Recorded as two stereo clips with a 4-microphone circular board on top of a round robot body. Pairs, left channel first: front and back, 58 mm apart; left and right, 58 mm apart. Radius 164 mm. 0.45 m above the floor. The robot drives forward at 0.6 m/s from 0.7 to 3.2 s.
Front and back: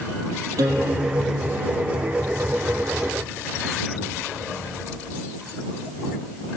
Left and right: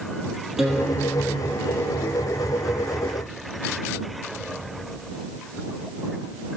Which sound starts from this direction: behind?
A guitar, at 0.6 s.